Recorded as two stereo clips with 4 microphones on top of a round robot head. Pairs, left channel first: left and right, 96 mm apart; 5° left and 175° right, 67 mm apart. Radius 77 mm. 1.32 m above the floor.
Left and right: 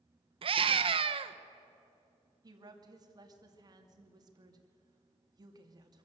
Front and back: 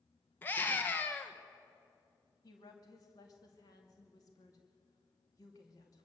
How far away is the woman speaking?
About 2.5 m.